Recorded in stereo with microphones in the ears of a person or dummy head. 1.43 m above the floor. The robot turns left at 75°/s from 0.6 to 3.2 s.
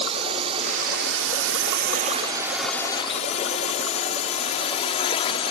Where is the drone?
30° right (ahead or behind); by 5.5 s 30° left (ahead or behind).